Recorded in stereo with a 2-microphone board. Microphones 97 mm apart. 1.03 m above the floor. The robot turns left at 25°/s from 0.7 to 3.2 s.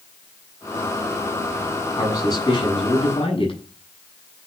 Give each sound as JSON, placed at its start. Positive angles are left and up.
{"t": 2.0, "sound": "a man speaking", "azimuth_deg": 145, "distance_m": 8.0}